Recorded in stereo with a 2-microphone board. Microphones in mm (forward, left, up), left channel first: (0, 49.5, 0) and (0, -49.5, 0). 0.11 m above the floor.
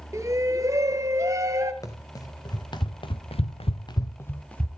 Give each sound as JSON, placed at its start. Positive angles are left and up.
{"t": 0.1, "sound": "a shout", "side_deg": -35, "distance_m": 1.6}
{"t": 1.8, "sound": "running footsteps", "side_deg": 35, "distance_m": 2.5}